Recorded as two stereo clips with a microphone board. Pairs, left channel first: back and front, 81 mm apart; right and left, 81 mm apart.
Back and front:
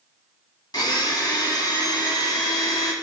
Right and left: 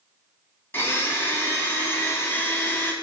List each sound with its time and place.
0.7 s a blender: 150° right, 0.8 m